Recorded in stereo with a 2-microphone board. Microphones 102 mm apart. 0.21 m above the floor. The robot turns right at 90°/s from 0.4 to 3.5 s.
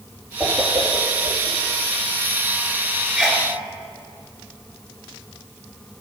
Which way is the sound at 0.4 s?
25° right (ahead or behind).